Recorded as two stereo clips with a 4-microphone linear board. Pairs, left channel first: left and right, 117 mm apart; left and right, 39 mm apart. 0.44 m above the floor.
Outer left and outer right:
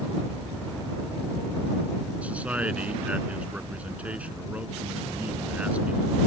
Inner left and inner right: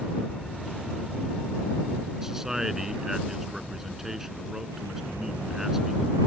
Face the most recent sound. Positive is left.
turn(degrees=-10)  # may be behind; listen again after turning